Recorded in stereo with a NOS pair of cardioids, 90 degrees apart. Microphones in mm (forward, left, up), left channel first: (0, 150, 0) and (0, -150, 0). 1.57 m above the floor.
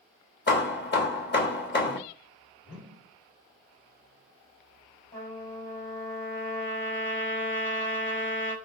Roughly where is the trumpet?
Ahead left.